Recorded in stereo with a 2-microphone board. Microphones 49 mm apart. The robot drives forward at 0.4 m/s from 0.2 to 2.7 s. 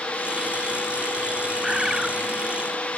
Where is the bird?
10° right (ahead or behind).